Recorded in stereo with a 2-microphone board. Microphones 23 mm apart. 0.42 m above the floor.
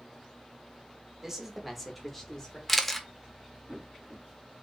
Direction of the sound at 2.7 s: 10° left (ahead or behind).